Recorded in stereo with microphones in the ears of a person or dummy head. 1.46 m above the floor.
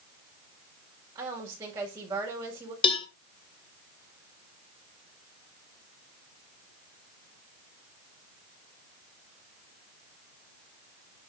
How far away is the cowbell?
About 1.5 m.